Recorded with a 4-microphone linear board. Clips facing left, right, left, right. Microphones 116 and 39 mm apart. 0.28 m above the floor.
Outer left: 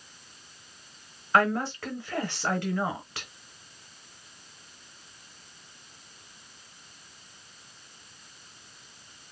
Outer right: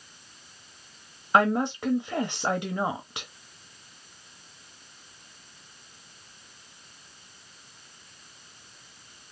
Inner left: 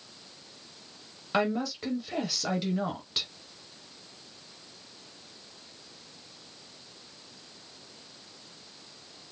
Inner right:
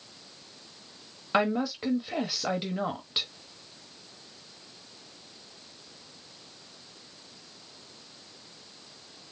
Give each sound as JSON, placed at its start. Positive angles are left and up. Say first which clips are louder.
{"t": 1.3, "sound": "a woman speaking", "louder": "outer right 2 dB, inner right 2 dB", "side_deg": -20, "distance_m": 0.9}